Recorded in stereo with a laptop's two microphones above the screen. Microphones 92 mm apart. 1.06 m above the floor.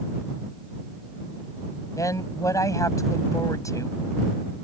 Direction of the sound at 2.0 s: 35° left (ahead or behind).